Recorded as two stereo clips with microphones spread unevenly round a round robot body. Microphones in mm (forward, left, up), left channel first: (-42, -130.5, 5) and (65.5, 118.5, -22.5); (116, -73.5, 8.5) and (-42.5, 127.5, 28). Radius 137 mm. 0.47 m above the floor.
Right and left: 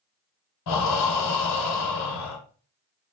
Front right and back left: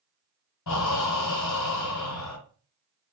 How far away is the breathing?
About 1.3 m.